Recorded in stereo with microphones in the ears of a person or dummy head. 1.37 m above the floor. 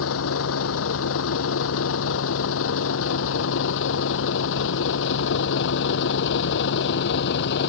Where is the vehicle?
80° left; by 7.7 s 65° left (ahead or behind).